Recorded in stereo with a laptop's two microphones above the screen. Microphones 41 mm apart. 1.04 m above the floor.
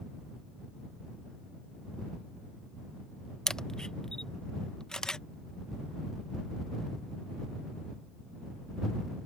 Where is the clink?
I don't hear a clink.